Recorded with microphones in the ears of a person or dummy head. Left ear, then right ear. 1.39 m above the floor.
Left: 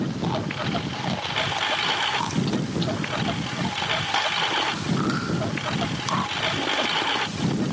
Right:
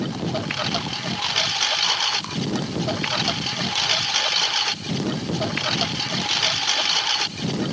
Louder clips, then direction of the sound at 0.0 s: Right 1 dB; 85° right.